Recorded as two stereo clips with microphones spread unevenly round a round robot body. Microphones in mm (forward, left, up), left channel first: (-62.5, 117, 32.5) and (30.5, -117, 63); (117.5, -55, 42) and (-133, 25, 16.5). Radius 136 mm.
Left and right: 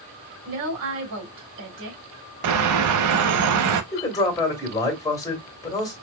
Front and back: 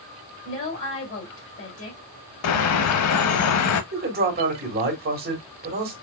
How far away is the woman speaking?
About 2 m.